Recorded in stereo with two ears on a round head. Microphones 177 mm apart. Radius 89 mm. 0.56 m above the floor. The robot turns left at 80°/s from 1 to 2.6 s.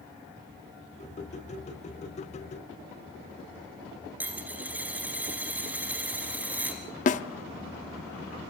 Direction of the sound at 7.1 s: 40° left (ahead or behind).